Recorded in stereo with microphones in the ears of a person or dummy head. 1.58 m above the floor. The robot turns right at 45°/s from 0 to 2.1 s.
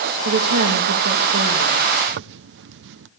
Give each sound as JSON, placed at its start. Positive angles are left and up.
{"t": 0.2, "sound": "a woman speaking", "azimuth_deg": -110, "distance_m": 1.7}
{"t": 2.1, "sound": "a zipper", "side_deg": -60, "distance_m": 0.6}